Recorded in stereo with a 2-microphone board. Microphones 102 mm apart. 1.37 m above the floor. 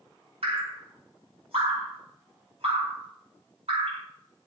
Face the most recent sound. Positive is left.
turn(degrees=-75)  # may be behind; listen again after turning